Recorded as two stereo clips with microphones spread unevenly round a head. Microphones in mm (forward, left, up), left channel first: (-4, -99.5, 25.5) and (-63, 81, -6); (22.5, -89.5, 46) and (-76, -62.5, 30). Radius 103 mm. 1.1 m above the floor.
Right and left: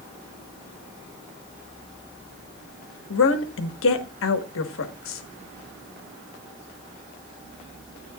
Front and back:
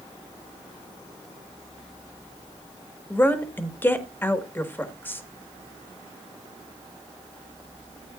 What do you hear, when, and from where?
3.1 s a woman speaking: 85° right, 1.6 m